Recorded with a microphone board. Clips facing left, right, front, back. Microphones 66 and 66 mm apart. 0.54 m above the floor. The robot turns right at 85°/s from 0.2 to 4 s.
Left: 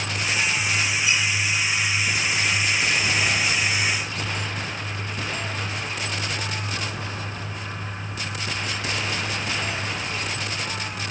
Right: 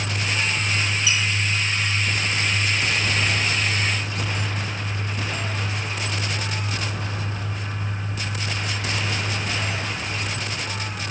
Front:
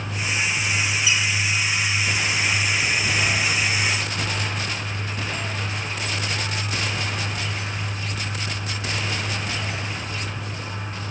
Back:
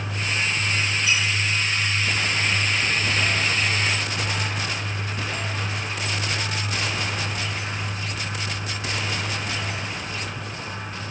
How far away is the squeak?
About 1.1 m.